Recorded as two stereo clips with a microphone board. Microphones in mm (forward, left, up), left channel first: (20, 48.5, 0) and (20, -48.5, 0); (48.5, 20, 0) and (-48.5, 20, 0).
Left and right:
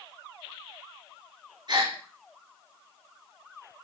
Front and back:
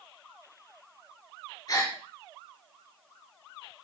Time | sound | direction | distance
1.7 | a gasp | 50° right | 3 m